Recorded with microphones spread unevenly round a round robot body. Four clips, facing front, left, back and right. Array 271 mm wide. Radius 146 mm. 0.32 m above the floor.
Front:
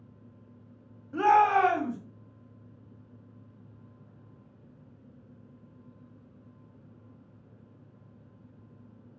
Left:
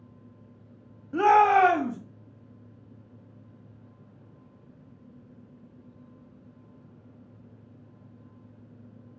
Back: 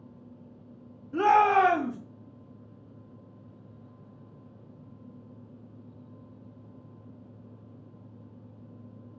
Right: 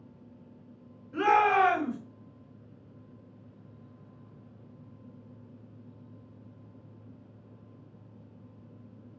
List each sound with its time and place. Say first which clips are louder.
1.1 s a shout: left 5 dB, back 1 dB; 120° left, 2 m